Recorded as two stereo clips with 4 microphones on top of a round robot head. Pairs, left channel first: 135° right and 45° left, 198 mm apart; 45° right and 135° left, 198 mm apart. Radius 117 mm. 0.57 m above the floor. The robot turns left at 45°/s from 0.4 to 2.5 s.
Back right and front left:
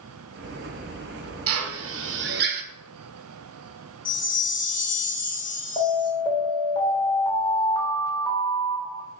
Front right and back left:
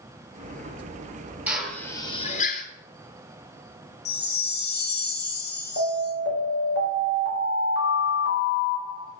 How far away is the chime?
About 2 m.